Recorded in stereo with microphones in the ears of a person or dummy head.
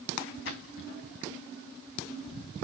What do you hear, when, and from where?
0.5 s a splash: 60° left (ahead or behind), 2 m